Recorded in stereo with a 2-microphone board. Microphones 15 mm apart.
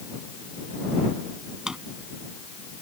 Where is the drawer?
40° right (ahead or behind).